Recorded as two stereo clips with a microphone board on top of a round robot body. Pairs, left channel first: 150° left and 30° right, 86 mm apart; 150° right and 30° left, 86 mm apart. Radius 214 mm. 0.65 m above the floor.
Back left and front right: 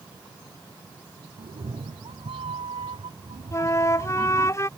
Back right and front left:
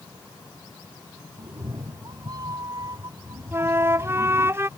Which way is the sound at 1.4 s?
15° right.